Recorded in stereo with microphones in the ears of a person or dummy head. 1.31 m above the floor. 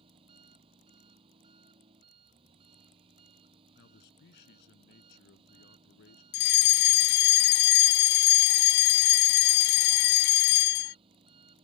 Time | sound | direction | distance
0.0 | an engine running | 35° right (ahead or behind) | ?
3.8 | a man speaking | 65° left (ahead or behind) | ?
6.3 | a fire alarm | 45° left (ahead or behind) | ?